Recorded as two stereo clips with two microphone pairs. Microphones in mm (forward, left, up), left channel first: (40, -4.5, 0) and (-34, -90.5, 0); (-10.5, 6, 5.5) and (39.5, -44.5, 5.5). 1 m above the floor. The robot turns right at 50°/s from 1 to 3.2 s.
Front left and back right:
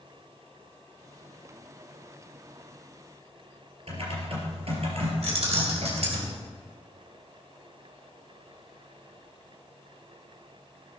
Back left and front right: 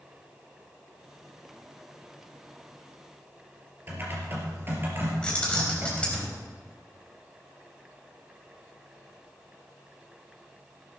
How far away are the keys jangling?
About 3.5 m.